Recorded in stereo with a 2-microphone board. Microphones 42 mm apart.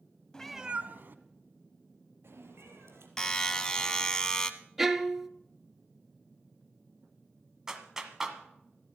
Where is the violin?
10° right (ahead or behind), 0.6 m.